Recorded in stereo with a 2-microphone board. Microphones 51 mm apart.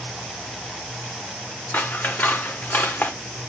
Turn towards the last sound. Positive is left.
turn(degrees=45)  # may be behind; listen again after turning